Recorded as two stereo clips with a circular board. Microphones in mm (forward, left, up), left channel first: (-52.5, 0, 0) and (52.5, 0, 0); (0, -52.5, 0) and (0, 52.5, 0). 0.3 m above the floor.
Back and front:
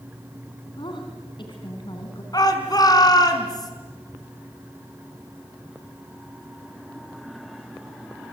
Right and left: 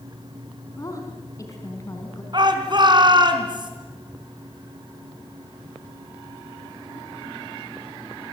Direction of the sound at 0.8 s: 145° right.